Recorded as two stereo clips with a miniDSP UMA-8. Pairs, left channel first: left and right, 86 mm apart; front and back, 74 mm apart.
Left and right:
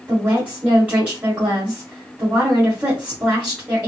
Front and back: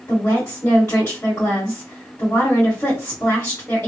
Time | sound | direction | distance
0.1 | a woman speaking | 35° right | 1.8 m